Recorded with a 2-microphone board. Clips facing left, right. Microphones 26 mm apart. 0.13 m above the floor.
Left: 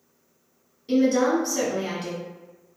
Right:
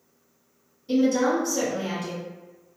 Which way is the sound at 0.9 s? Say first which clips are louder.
Left 1 dB; 40° left (ahead or behind).